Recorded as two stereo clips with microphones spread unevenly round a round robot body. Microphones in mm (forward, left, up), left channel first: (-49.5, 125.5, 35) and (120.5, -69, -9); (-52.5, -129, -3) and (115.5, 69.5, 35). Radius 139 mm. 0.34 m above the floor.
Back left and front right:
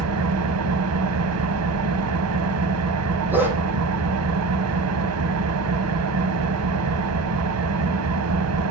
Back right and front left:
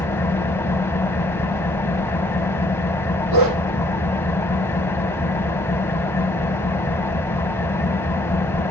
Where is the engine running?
55° right, 1.2 m.